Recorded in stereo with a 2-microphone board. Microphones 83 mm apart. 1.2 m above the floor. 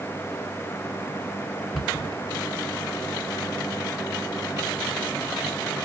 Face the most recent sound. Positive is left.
turn(degrees=0)  # may be behind; listen again after turning